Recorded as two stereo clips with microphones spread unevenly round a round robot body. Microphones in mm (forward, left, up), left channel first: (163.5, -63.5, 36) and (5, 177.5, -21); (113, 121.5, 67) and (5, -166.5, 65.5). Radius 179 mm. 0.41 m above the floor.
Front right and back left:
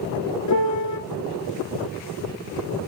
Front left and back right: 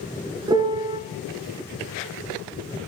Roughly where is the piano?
Ahead right.